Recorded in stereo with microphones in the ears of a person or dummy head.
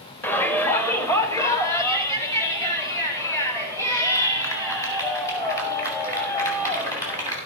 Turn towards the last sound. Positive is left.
turn(degrees=15)  # may be behind; listen again after turning